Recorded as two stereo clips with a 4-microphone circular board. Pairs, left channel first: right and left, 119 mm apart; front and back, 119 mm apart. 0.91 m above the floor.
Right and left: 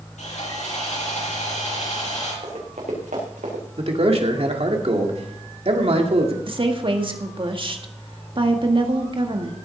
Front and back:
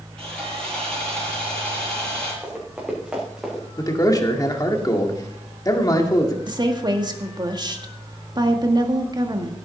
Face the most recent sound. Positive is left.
turn(degrees=130)